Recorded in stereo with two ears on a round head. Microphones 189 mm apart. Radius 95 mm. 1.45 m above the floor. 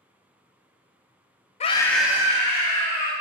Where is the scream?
30° left (ahead or behind), 0.5 m; by 3.1 s 40° right (ahead or behind), 1.3 m.